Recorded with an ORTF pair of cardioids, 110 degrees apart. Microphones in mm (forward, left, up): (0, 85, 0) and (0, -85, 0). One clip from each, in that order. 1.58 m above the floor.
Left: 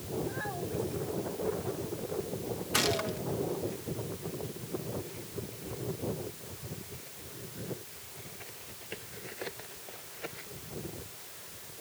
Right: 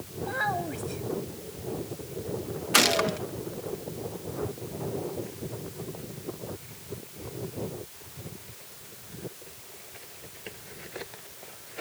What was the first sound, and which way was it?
A child speaking, 60° right.